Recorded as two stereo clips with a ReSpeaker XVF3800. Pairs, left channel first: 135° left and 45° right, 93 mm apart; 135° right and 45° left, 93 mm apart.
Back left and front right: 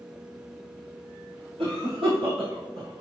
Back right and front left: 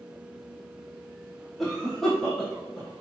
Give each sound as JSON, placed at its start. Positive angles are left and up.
{"t": 1.6, "sound": "a cough", "azimuth_deg": -45, "distance_m": 4.0}